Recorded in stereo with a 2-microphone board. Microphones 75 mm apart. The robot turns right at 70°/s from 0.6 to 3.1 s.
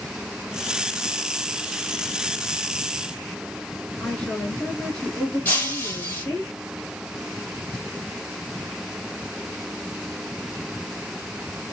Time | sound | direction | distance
4.0 | a woman speaking | 15° left (ahead or behind) | 1.7 m
5.5 | breaking glass | 20° left (ahead or behind) | 2 m